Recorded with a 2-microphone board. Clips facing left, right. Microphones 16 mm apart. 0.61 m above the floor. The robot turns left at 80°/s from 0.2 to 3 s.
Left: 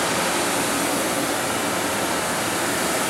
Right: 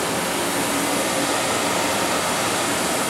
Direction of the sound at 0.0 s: 50° left.